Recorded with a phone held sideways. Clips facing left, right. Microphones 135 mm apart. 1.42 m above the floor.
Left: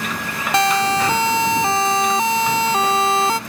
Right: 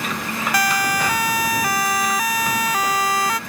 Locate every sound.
0.5 s a siren: 25° left (ahead or behind)